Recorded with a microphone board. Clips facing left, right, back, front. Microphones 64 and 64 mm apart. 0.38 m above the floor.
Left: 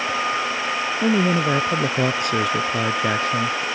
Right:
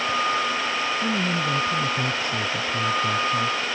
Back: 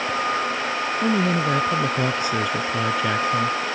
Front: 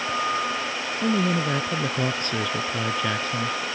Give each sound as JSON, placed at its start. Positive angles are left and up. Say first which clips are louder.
{"t": 1.0, "sound": "a man speaking", "louder": "left 5 dB, back 1 dB", "azimuth_deg": 100}